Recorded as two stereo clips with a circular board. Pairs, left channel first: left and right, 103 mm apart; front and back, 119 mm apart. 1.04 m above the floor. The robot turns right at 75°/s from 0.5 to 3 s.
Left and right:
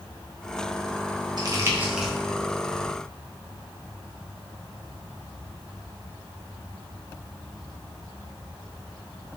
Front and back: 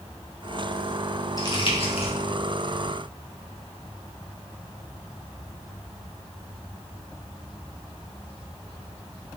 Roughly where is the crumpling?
Ahead right.